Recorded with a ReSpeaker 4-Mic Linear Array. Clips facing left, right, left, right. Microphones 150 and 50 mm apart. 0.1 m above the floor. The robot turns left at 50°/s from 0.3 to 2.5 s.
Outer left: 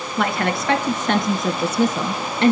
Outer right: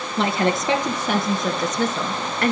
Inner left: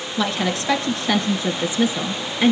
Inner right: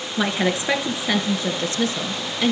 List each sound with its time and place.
0.2 s a woman speaking: 125° right, 1.6 m; by 2.5 s 125° left, 1.6 m